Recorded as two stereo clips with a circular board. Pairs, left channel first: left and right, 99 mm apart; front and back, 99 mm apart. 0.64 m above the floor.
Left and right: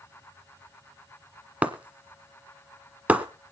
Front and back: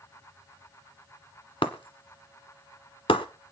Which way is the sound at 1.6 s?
15° right.